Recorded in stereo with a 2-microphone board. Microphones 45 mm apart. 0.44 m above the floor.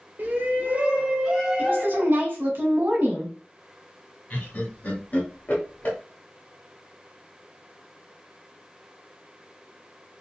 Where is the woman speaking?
55° right (ahead or behind), 1.4 m.